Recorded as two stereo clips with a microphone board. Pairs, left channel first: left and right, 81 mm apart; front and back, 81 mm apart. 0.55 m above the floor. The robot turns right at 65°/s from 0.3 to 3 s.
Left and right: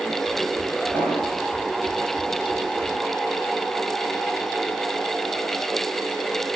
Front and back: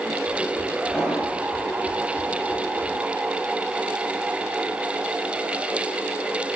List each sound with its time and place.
0.9 s an explosion: 90° right, 9.5 m; by 1.4 s 55° right, 9.5 m